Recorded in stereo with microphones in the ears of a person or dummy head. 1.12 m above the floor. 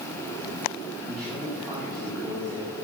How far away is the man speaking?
About 2 m.